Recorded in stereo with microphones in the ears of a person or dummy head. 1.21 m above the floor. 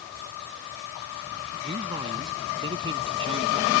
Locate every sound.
1.6 s a man speaking: 25° right (ahead or behind); by 3.7 s 30° right (ahead or behind)